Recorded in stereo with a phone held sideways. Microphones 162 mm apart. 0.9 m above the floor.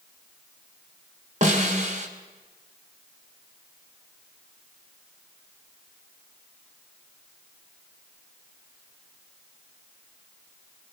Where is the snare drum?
50° right (ahead or behind), 2.5 m.